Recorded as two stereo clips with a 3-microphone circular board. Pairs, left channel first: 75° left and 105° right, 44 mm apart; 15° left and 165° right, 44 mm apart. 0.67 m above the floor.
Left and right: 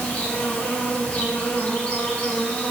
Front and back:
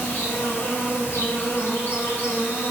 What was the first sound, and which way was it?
An insect, 25° left.